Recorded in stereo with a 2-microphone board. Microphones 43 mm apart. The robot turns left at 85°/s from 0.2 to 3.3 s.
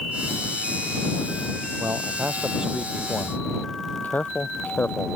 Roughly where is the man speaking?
Right.